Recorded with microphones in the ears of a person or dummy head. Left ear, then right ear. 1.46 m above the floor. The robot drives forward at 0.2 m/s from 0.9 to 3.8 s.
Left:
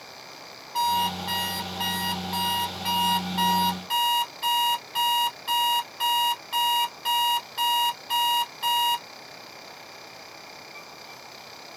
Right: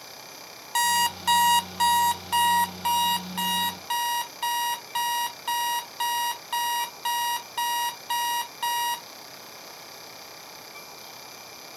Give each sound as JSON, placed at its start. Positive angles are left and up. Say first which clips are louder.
{"t": 0.8, "sound": "an alarm clock", "louder": "right 1 dB", "side_deg": -40, "distance_m": 0.7}